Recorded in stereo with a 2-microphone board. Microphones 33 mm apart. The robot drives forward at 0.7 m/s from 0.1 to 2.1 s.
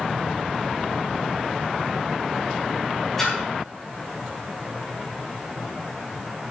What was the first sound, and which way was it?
A splash, 10° left (ahead or behind).